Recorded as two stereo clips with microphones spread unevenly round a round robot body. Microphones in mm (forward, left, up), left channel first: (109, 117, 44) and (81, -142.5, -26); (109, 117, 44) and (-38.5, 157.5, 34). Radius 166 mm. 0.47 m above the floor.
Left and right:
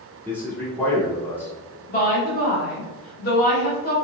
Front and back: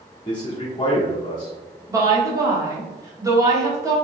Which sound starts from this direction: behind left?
A woman speaking, at 1.9 s.